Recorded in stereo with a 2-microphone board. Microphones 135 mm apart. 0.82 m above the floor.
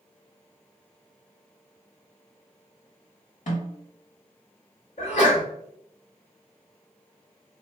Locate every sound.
3.5 s a snare drum: 65° left (ahead or behind), 1.8 m
5.0 s a sneeze: 45° left (ahead or behind), 1.8 m